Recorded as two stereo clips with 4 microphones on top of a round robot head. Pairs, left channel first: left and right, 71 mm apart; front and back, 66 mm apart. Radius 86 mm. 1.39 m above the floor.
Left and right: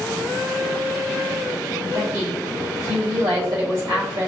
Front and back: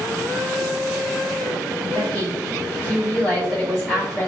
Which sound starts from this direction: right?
A woman speaking, at 1.8 s.